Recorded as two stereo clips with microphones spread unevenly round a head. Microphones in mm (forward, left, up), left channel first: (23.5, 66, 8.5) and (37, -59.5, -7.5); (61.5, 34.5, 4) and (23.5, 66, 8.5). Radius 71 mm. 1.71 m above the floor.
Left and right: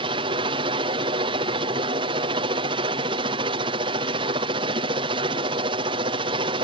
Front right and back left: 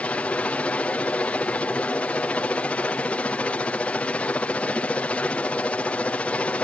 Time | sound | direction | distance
0.0 | a helicopter | 90° right | ?